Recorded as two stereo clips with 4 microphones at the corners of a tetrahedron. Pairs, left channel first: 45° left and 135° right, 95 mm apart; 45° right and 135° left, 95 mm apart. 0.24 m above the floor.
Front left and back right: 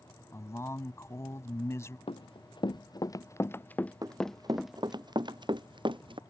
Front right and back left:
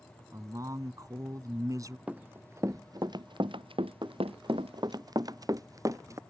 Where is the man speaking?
95° left.